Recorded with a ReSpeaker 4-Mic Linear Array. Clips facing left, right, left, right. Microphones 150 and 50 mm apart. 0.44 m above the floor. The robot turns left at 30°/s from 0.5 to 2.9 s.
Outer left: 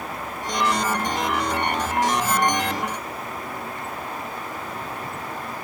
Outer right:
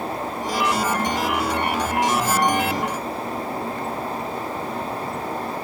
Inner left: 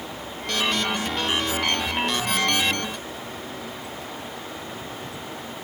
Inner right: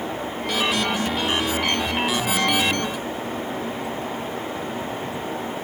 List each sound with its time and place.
Only background noise.